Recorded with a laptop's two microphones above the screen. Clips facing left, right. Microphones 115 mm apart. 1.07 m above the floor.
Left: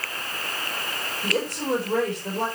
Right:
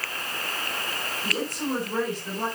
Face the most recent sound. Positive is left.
turn(degrees=70)  # may be behind; listen again after turning